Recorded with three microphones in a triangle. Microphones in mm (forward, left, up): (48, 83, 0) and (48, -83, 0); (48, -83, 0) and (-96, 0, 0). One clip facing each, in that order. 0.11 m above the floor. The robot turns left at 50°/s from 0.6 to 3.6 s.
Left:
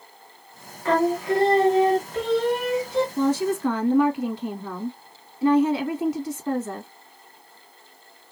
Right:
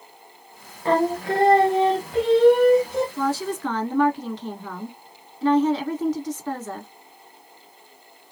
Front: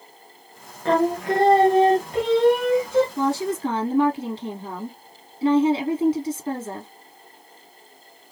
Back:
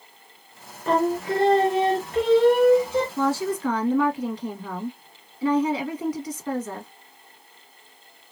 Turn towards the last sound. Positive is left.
turn(degrees=10)